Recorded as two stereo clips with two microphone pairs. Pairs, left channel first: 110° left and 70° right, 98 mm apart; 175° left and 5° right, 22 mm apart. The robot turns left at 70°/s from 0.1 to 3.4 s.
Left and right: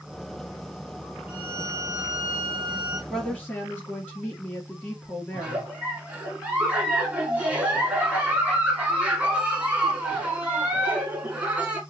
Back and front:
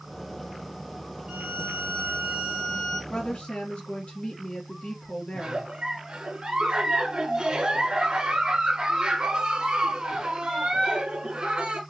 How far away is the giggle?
About 1.3 m.